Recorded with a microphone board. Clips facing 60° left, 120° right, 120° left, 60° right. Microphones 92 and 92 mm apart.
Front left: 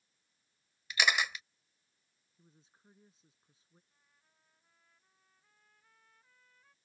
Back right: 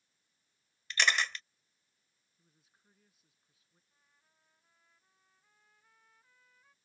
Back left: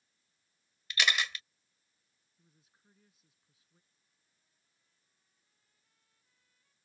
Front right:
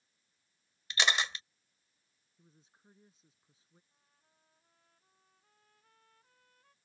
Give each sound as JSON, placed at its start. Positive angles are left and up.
{"t": 0.9, "sound": "a camera shutter", "azimuth_deg": -15}
{"t": 2.4, "sound": "a woman speaking", "azimuth_deg": 0}
{"t": 3.9, "sound": "a trumpet", "azimuth_deg": -35}